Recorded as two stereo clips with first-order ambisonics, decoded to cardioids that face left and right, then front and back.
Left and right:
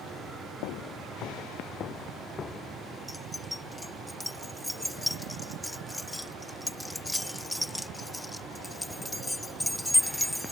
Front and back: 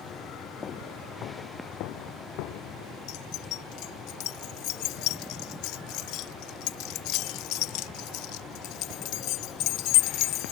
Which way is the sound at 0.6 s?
70° left.